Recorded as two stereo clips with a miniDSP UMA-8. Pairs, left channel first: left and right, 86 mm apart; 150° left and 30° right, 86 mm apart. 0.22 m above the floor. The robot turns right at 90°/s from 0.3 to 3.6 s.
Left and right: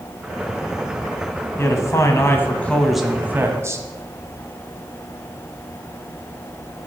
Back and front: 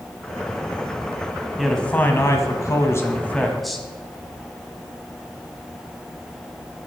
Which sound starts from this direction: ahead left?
A man speaking, at 1.6 s.